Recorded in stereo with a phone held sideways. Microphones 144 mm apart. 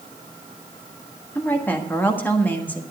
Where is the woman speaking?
15° left (ahead or behind), 1.5 m.